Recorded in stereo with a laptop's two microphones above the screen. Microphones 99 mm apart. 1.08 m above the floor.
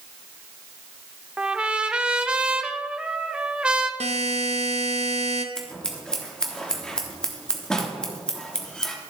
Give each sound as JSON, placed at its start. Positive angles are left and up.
{"t": 1.4, "sound": "a trumpet", "side_deg": -10, "distance_m": 0.8}
{"t": 4.0, "sound": "a buzzer", "side_deg": -80, "distance_m": 0.7}
{"t": 5.5, "sound": "scissors", "side_deg": 5, "distance_m": 1.0}